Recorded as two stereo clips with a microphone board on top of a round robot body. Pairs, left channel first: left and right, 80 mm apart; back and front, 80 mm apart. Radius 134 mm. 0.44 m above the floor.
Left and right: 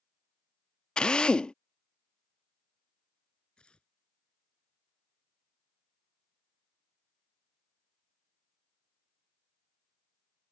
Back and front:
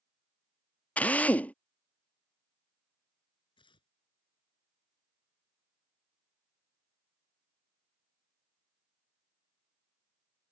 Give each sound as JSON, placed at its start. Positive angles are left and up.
{"t": 1.0, "sound": "a drill", "azimuth_deg": 150}
{"t": 3.6, "sound": "tearing paper", "azimuth_deg": 170}